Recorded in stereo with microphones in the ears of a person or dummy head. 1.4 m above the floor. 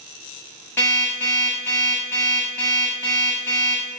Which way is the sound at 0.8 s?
15° left (ahead or behind).